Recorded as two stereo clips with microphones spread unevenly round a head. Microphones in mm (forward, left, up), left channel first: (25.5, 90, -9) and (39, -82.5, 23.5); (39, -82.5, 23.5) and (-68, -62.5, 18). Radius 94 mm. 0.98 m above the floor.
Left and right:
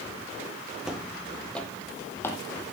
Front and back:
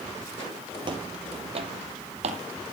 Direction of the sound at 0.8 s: 160° right.